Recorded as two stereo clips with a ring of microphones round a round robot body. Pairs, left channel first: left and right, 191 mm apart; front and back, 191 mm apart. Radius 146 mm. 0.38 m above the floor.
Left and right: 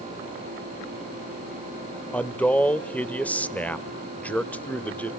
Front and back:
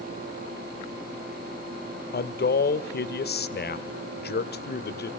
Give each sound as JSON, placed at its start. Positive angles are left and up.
{"t": 2.1, "sound": "a man speaking", "azimuth_deg": 10, "distance_m": 1.4}